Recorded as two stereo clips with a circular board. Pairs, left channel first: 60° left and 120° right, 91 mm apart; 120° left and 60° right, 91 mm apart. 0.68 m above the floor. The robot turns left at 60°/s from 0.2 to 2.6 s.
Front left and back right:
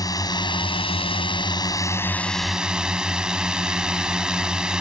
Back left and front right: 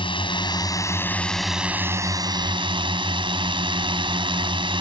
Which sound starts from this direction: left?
A drone, at 0.0 s.